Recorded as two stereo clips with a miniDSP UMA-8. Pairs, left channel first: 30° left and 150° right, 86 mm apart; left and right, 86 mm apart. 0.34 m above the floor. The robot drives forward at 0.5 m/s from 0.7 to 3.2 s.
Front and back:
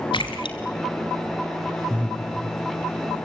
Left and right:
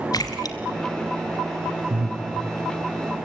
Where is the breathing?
75° right, 3.5 m.